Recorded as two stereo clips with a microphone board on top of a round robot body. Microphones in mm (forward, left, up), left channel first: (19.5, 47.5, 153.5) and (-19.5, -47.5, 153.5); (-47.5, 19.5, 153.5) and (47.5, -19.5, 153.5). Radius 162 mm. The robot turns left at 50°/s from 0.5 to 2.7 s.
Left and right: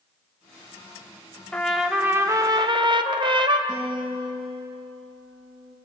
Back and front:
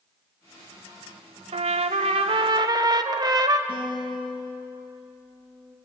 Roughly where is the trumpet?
Ahead.